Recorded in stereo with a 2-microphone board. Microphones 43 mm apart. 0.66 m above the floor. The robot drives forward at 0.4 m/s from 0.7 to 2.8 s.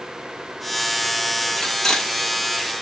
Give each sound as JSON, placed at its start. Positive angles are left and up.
{"t": 1.6, "sound": "cutlery clinking", "side_deg": 15, "distance_m": 0.7}